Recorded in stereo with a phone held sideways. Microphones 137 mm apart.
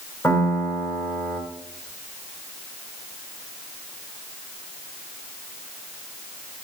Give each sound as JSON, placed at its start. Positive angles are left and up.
{"t": 0.2, "sound": "a piano", "side_deg": 15, "distance_m": 3.5}